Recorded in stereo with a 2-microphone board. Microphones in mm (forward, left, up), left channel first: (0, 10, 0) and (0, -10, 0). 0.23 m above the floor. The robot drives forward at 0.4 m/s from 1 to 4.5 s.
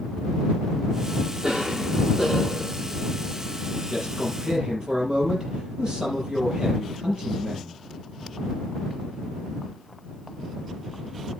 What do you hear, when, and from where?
1.4 s a cough: 40° right (ahead or behind), 7.5 m
3.9 s a man speaking: 45° right (ahead or behind), 6.5 m; by 7.8 s 40° right (ahead or behind), 6.5 m